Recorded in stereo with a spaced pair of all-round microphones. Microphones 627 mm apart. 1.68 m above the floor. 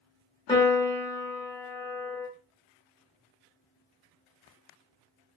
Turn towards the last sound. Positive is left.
turn(degrees=5)  # may be behind; listen again after turning